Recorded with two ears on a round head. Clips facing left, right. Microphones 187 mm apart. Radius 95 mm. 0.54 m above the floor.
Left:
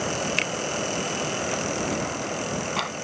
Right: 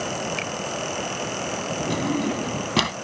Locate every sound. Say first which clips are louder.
0.4 s a finger snap: even; 65° left (ahead or behind)
1.9 s a drawer: right 5 dB; 55° right (ahead or behind)